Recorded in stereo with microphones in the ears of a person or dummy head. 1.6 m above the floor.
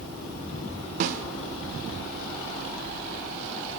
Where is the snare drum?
45° right (ahead or behind), 0.8 m.